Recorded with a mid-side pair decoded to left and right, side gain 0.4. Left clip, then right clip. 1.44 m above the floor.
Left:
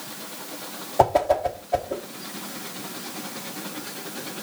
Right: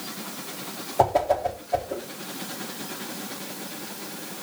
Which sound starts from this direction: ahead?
A whoosh, at 1.0 s.